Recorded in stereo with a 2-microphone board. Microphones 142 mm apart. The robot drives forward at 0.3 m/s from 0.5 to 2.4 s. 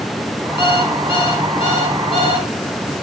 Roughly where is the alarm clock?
Left.